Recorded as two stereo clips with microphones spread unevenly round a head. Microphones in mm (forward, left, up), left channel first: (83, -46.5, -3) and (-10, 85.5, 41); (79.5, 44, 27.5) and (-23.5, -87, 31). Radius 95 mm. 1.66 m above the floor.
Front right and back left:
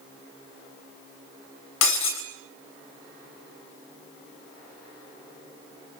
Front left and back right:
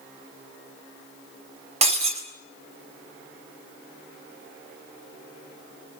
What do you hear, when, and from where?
1.8 s breaking glass: 80° right, 4 m